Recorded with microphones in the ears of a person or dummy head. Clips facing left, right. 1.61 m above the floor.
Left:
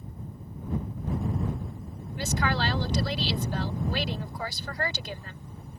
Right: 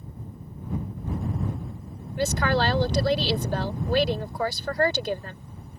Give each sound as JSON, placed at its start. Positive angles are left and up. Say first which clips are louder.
{"t": 2.2, "sound": "a woman speaking", "louder": "right 5 dB", "side_deg": -45}